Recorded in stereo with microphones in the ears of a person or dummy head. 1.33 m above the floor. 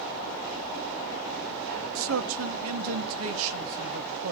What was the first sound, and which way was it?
A man speaking, 75° right (ahead or behind).